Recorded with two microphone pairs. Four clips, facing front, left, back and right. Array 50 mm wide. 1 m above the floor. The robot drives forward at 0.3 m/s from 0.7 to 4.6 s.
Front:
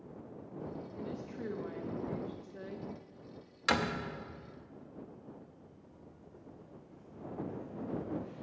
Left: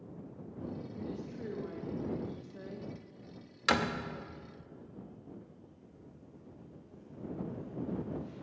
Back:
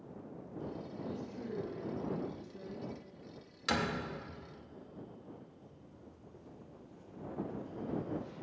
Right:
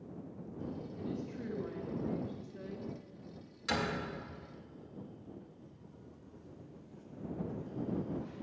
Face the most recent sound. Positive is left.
turn(degrees=170)